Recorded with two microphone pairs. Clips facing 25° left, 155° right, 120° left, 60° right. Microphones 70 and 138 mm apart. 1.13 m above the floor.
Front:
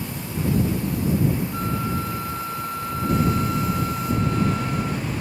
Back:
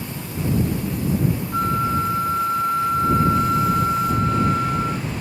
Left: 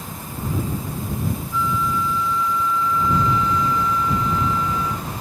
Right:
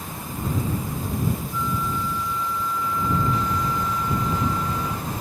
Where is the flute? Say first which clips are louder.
Back 5 dB, left 4 dB; 100° right.